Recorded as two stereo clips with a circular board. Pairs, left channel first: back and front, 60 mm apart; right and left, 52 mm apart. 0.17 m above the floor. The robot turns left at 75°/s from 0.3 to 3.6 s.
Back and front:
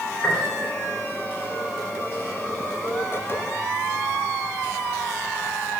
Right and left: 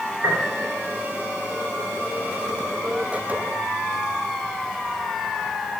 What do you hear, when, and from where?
0.2 s a piano: 115° left, 3 m; by 0.6 s 95° left, 3 m